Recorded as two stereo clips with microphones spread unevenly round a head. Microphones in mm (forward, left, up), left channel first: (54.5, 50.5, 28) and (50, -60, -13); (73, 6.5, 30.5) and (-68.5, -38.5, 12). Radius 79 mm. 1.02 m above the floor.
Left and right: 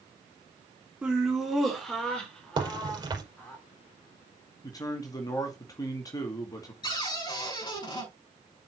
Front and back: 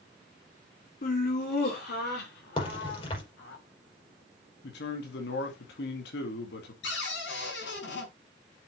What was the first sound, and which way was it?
Laughter, 15° right.